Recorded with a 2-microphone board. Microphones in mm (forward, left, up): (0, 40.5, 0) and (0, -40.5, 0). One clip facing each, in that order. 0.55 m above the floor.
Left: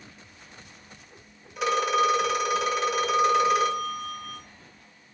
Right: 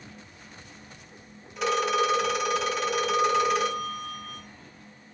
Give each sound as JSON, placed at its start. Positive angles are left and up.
{"t": 1.6, "sound": "a phone ringing", "side_deg": 5, "distance_m": 1.2}